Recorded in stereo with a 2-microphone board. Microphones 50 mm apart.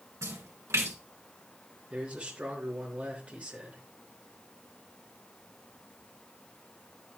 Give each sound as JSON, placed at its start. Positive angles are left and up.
{"t": 0.2, "sound": "a splash", "side_deg": -70, "distance_m": 3.0}
{"t": 1.9, "sound": "a man speaking", "side_deg": -25, "distance_m": 5.0}